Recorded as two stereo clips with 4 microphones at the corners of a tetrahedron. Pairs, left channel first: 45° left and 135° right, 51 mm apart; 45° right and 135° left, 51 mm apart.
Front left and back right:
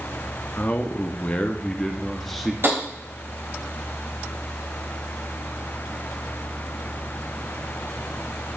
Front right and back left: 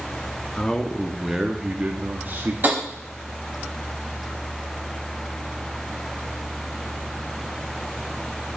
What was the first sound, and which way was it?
A man speaking, 25° left.